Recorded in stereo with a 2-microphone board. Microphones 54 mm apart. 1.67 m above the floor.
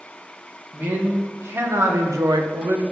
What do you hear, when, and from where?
0.7 s a man speaking: 40° right (ahead or behind), 1.9 m; by 2.8 s 80° right, 1.1 m